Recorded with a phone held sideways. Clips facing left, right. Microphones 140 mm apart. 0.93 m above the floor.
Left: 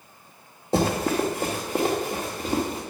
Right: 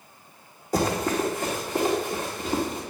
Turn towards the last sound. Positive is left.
turn(degrees=40)  # may be behind; listen again after turning